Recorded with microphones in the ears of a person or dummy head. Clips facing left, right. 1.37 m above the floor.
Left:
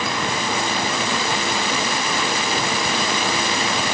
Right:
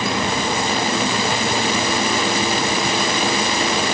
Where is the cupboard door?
No cupboard door in this recording.